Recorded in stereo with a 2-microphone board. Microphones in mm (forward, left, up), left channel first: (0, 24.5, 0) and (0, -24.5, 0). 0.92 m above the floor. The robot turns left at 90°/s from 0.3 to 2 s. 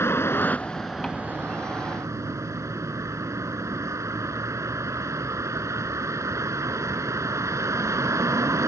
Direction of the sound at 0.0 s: 55° left.